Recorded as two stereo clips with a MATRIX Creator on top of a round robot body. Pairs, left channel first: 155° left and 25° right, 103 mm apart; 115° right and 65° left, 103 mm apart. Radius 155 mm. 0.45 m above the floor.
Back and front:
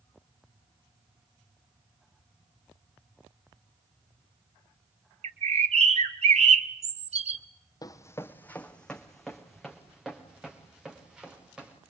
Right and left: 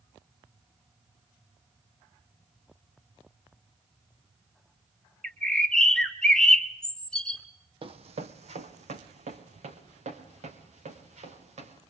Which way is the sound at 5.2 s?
30° right.